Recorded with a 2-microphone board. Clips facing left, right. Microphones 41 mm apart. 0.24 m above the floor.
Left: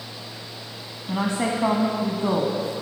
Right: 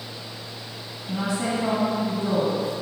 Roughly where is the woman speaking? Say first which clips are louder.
Left 2 dB; left.